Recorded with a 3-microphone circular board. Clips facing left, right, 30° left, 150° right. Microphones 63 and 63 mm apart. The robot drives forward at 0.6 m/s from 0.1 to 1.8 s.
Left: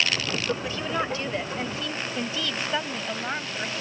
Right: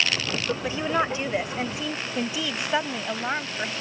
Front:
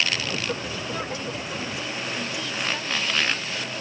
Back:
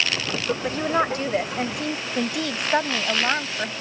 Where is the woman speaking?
150° right; by 3.7 s 165° right.